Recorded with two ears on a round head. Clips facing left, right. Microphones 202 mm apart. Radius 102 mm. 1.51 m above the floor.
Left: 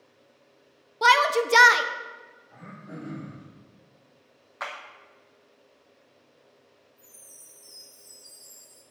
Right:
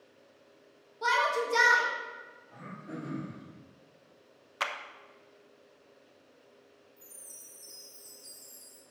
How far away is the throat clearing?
About 3.5 m.